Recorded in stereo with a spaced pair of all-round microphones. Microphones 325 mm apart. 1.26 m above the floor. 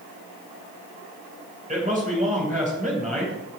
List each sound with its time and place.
1.7 s a man speaking: 25° right (ahead or behind), 7 m